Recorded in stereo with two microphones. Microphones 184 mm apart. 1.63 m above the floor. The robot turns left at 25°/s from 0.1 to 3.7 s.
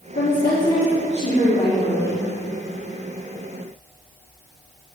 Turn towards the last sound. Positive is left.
turn(degrees=0)